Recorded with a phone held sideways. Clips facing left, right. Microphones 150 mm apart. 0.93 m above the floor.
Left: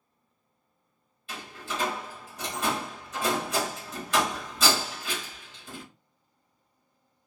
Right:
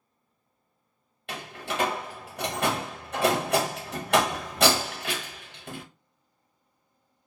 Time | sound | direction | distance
1.3 | a door slam | 65° right (ahead or behind) | 0.8 m